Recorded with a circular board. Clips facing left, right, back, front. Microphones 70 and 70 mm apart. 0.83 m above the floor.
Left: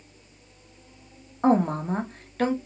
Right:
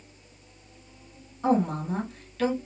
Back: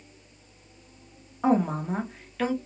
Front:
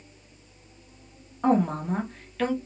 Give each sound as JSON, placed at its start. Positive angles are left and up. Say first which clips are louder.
{"t": 1.4, "sound": "a woman speaking", "louder": "left 3 dB, front 1 dB", "azimuth_deg": 95, "distance_m": 0.7}